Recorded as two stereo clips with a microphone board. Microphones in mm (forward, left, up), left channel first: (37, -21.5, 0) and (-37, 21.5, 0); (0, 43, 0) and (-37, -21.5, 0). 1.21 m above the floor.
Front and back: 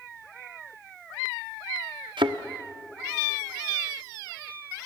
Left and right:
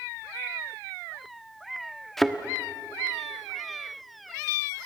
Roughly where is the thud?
Behind left.